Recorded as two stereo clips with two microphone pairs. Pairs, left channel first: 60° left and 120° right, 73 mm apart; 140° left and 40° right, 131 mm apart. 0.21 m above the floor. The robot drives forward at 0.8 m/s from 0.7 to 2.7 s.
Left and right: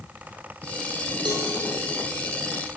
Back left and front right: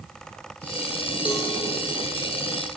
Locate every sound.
1.2 s a cowbell: 120° right, 6.5 m